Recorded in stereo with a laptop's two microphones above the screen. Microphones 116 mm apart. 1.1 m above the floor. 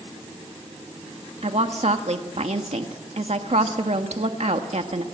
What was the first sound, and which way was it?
A woman speaking, 70° right (ahead or behind).